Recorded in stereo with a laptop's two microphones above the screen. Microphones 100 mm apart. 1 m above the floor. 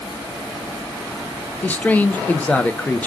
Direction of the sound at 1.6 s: 15° left (ahead or behind).